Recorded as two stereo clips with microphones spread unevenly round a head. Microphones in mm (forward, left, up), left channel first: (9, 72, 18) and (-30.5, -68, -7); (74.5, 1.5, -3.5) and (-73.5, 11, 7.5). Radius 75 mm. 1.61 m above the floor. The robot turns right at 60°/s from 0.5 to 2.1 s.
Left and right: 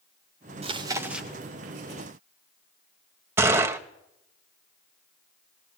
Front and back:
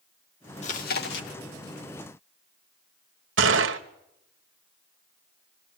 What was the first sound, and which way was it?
Chewing, 50° right.